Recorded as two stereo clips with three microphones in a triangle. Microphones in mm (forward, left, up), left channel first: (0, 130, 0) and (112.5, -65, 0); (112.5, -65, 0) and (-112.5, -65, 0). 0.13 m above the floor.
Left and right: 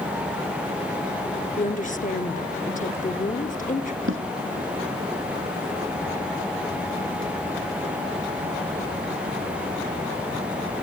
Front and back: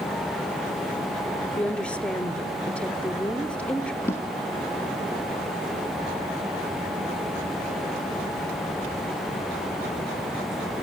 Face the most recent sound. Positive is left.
turn(degrees=-80)